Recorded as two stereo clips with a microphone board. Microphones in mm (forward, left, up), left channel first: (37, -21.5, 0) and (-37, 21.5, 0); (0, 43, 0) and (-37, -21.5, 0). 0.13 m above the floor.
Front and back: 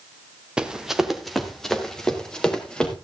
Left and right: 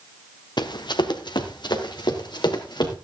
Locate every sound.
0.6 s running footsteps: 70° left, 1.5 m; by 3.0 s 50° left, 3.5 m